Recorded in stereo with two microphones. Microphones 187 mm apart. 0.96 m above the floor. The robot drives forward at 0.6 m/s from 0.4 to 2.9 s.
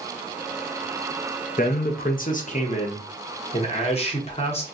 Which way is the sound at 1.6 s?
45° left (ahead or behind).